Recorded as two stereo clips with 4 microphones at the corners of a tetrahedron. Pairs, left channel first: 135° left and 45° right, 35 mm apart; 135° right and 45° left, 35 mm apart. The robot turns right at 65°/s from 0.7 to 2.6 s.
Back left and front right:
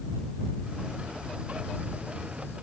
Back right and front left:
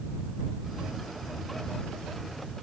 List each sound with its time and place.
Only background noise.